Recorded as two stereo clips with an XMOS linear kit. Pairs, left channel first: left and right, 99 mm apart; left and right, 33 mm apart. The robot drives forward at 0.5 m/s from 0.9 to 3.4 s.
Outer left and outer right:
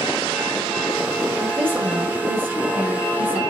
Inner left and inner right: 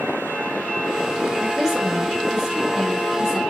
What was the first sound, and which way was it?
A woman speaking, 20° right (ahead or behind).